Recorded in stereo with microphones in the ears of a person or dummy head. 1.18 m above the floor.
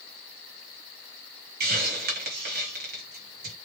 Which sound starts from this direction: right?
A hiss, at 1.6 s.